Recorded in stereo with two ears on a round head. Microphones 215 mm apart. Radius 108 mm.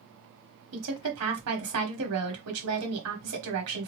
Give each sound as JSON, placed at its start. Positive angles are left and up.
{"t": 0.7, "sound": "a woman speaking", "side_deg": -65, "distance_m": 1.4}